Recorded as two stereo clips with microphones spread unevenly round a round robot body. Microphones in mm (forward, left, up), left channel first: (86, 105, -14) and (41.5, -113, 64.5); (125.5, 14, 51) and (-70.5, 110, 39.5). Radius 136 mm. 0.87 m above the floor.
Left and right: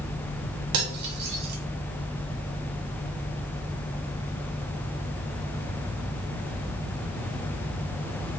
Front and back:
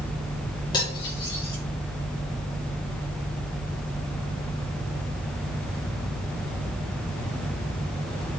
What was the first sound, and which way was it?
Cutlery clinking, 100° right.